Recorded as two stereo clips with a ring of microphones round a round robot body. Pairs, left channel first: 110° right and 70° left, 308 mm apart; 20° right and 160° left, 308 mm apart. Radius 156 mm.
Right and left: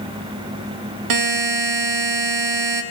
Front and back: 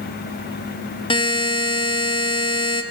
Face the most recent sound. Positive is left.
turn(degrees=50)